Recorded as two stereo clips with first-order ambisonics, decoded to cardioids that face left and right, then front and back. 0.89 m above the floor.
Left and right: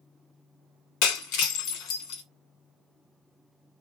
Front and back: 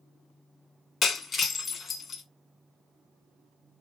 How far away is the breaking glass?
About 1.3 m.